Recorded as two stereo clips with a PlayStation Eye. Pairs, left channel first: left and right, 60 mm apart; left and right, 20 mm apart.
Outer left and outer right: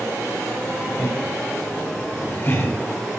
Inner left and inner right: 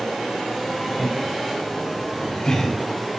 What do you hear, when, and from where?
1.0 s laughter: 25° left (ahead or behind), 2.5 m; by 2.8 s 45° left (ahead or behind), 1.9 m